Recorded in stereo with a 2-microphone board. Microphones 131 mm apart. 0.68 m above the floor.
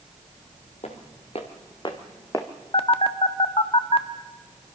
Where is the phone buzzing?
45° left (ahead or behind), 0.9 m.